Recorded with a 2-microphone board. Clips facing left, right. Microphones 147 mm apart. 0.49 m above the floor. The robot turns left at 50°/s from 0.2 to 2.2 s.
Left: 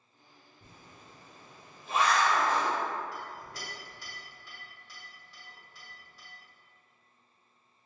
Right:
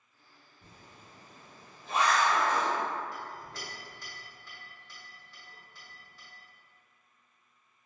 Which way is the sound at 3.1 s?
10° left (ahead or behind).